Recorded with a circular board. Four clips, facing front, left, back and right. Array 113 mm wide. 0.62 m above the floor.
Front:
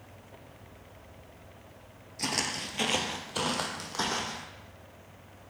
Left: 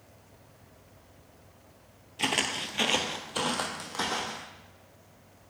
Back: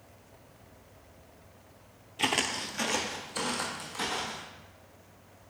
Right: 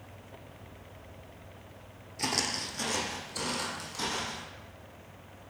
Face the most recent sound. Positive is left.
turn(degrees=40)